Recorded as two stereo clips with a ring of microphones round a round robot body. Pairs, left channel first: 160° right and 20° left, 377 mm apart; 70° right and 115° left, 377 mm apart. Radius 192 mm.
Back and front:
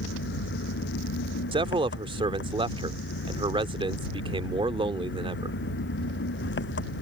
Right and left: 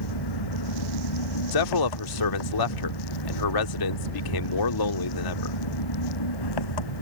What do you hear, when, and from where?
0.0 s an engine running: 95° right
1.5 s a man speaking: 55° right